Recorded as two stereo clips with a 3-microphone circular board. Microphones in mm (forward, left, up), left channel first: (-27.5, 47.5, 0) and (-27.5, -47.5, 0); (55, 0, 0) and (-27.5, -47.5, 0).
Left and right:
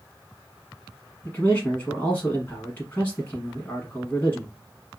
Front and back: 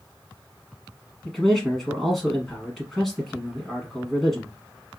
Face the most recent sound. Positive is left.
turn(degrees=110)